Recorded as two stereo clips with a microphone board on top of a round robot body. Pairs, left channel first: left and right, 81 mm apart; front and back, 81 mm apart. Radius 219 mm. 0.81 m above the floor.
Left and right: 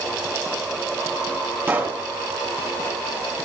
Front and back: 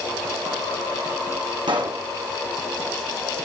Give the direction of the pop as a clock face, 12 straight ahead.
5 o'clock.